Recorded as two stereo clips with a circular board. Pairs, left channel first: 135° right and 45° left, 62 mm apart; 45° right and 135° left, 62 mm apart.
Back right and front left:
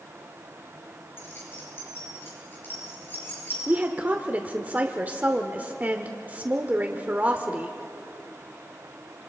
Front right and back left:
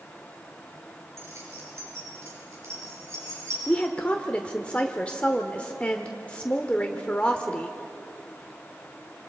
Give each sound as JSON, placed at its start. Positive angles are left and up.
{"t": 1.2, "sound": "keys jangling", "azimuth_deg": 175, "distance_m": 6.0}
{"t": 3.7, "sound": "a woman speaking", "azimuth_deg": 10, "distance_m": 1.1}